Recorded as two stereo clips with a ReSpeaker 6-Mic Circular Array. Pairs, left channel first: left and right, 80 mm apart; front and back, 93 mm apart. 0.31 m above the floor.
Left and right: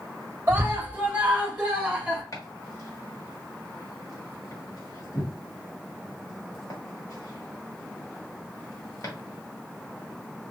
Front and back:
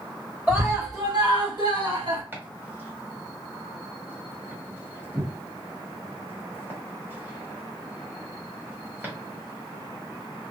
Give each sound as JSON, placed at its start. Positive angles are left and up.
{"t": 0.5, "sound": "a scream", "azimuth_deg": -130, "distance_m": 1.1}
{"t": 2.3, "sound": "chopping", "azimuth_deg": 120, "distance_m": 1.7}